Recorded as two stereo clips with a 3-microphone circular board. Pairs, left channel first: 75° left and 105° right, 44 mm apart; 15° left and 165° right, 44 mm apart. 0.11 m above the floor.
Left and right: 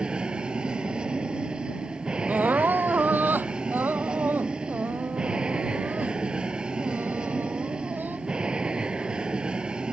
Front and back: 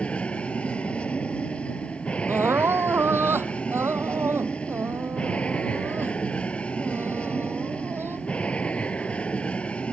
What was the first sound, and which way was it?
An aircraft, 40° right.